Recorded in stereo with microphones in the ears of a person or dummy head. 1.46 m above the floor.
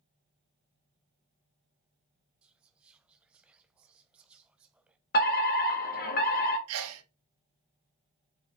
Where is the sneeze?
80° right, 1.2 m.